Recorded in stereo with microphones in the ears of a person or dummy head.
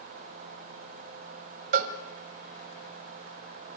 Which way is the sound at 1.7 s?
45° right (ahead or behind).